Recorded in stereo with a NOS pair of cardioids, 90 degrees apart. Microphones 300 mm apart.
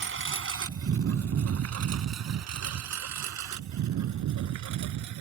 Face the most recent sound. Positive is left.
turn(degrees=-75)